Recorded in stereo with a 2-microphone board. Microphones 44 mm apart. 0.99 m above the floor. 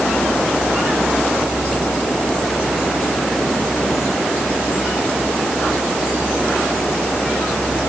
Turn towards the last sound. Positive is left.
No sound to turn to.